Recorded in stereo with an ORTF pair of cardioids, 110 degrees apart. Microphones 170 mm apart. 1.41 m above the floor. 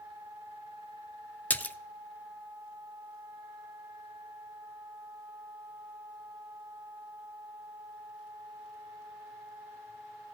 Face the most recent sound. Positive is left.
turn(degrees=10)